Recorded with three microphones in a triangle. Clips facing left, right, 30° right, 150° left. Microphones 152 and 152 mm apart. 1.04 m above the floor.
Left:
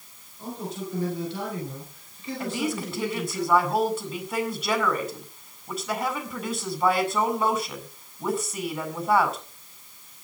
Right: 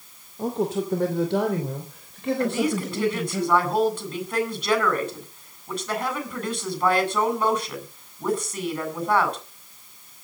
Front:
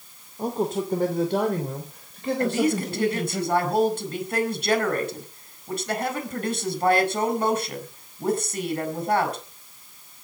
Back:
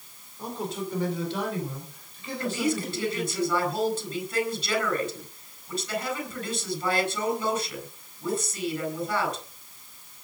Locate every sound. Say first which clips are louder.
0.4 s a man speaking: right 9 dB, front 7 dB; 75° right, 2.5 m; by 3.4 s 60° right, 4.5 m
2.4 s a woman speaking: right 3 dB, front 4 dB; 5° left, 7.5 m